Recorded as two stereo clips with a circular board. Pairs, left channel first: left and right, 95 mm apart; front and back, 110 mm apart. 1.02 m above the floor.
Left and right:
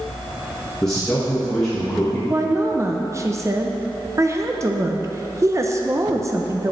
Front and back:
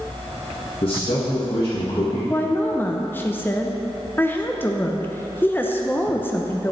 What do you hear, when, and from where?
0.8 s a man speaking: 10° left, 1.4 m
2.3 s a woman speaking: 55° right, 0.6 m